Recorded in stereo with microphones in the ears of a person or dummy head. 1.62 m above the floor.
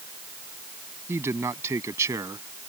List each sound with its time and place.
1.1 s a man speaking: 15° right (ahead or behind)